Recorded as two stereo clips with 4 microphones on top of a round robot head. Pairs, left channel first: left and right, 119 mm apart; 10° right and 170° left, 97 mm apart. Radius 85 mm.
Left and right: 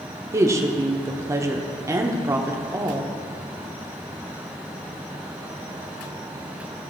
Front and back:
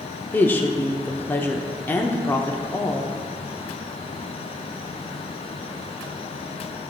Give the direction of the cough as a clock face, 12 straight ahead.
I don't hear a cough.